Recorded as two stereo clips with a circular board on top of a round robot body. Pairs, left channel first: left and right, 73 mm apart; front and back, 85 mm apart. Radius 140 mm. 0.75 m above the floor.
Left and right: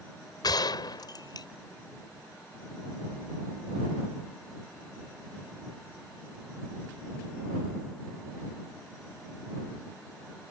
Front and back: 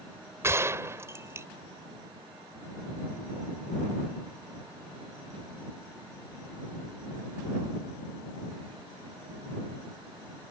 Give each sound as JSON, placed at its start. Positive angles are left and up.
{"t": 0.4, "sound": "a gunshot", "azimuth_deg": 120}